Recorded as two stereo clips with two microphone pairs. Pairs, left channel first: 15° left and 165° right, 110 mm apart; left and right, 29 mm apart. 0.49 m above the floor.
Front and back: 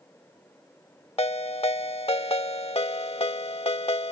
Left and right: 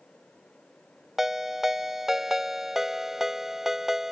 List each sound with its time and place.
1.2 s a ringtone: 15° right